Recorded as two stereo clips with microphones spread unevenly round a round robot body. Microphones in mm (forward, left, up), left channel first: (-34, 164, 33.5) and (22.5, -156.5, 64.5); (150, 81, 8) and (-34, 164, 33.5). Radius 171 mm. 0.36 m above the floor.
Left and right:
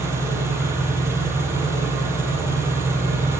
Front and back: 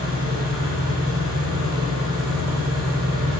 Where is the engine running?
160° right, 4 m.